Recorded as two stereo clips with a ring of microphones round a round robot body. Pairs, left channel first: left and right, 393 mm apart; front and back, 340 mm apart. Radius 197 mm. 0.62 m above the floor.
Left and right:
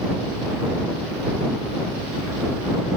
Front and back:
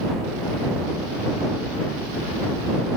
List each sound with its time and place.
Only background noise.